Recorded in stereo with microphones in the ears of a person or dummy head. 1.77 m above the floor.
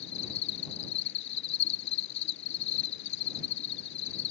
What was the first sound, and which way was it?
An insect, 65° left (ahead or behind).